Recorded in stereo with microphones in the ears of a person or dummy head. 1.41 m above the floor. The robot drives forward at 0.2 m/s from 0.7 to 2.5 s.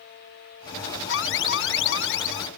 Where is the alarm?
70° left (ahead or behind); by 2.5 s 75° left (ahead or behind).